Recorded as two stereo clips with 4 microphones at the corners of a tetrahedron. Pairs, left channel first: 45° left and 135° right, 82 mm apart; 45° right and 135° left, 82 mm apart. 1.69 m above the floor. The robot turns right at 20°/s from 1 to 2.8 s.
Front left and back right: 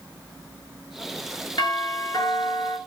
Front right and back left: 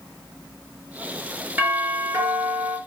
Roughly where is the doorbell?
Left.